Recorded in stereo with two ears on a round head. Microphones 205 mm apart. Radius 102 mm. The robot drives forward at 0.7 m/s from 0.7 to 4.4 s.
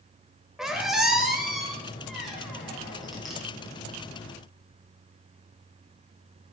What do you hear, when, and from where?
0.6 s a squeak: centre (ahead or behind), 0.8 m